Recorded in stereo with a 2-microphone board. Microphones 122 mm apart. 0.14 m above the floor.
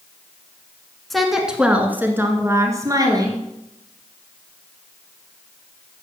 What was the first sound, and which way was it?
A woman speaking, centre (ahead or behind).